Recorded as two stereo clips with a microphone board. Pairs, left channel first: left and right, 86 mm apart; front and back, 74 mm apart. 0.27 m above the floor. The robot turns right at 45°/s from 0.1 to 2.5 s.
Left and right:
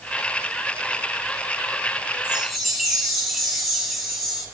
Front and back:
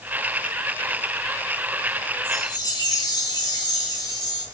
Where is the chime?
10° right, 1.8 m; by 4.5 s straight ahead, 1.8 m.